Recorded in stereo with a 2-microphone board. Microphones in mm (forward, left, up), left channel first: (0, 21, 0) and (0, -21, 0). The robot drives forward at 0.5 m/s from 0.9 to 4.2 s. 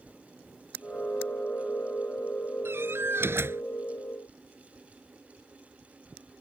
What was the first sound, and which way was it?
A door slam, 75° right (ahead or behind).